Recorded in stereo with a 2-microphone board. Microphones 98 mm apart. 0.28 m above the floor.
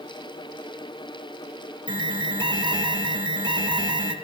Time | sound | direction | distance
1.9 | an alarm | 55° right (ahead or behind) | 2.5 m